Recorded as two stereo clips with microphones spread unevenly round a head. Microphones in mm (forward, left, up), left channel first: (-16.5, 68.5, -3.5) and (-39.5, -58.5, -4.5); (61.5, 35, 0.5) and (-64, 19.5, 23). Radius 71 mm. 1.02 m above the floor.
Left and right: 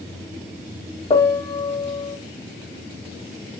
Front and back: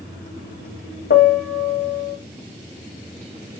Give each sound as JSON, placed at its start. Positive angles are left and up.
{"t": 1.1, "sound": "a piano", "azimuth_deg": 15, "distance_m": 2.0}